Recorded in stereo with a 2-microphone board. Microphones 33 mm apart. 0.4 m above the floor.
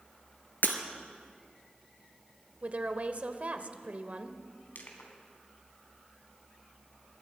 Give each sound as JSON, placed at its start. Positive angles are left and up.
{"t": 0.6, "sound": "breaking glass", "side_deg": 75, "distance_m": 2.0}
{"t": 2.6, "sound": "a woman speaking", "side_deg": -45, "distance_m": 1.6}
{"t": 4.8, "sound": "crushing", "side_deg": 75, "distance_m": 3.5}